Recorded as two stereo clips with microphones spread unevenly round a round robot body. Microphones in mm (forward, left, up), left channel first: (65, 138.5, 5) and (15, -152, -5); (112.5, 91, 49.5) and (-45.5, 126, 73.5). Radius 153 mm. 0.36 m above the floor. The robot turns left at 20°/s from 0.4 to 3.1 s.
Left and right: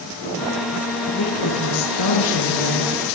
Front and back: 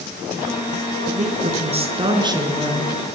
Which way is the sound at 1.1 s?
125° left.